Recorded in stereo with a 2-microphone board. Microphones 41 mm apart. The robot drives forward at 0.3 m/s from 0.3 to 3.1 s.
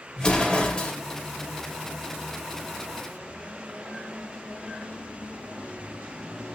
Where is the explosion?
30° left (ahead or behind), 2 m.